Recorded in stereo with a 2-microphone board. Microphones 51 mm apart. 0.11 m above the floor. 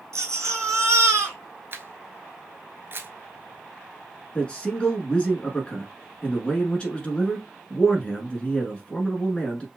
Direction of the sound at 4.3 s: 20° left (ahead or behind).